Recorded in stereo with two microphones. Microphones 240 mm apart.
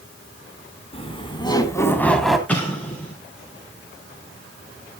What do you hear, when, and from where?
0.9 s laughter: 25° left (ahead or behind), 2.5 m; by 2.4 s centre (ahead or behind), 1.9 m
2.5 s an explosion: 5° left (ahead or behind), 4.5 m